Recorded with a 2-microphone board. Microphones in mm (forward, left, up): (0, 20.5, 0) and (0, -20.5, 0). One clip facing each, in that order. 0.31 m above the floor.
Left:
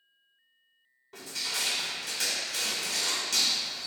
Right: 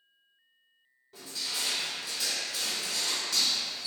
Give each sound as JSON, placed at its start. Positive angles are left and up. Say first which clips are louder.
{"t": 1.1, "sound": "crushing", "louder": "left 2 dB", "side_deg": 65, "distance_m": 0.5}